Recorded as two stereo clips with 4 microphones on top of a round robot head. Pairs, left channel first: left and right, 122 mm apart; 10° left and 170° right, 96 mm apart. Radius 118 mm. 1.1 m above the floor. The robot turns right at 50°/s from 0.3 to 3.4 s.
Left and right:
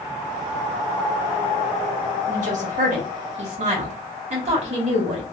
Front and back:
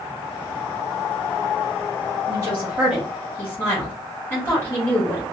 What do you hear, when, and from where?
2.3 s a woman speaking: 115° right, 1.5 m; by 5.2 s 60° right, 1.5 m